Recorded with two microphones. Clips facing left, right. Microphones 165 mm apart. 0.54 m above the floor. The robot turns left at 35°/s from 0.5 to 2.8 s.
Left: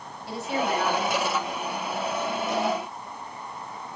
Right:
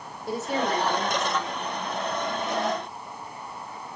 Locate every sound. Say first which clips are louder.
0.3 s a woman speaking: right 1 dB; 130° right, 2 m; by 1.5 s 165° right, 2 m